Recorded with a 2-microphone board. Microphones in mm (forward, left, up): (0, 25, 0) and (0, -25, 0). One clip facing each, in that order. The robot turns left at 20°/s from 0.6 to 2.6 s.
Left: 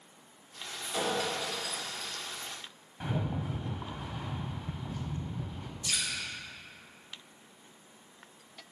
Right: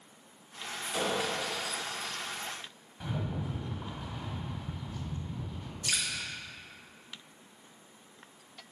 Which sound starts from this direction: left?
A rattle, at 3.0 s.